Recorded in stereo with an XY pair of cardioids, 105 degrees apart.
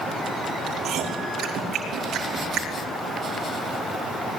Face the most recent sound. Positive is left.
turn(degrees=-70)